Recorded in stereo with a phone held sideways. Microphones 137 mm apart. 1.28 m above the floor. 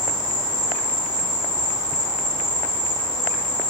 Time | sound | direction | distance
0.0 | an insect | 40° right (ahead or behind) | 1.9 m